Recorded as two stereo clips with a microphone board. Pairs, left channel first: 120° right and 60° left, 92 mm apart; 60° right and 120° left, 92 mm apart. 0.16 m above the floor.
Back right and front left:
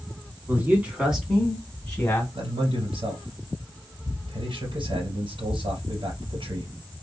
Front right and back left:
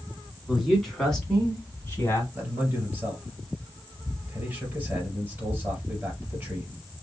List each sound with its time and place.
0.5 s a man speaking: 35° left, 1.6 m; by 2.2 s 80° right, 1.6 m
2.4 s a man speaking: 55° left, 2 m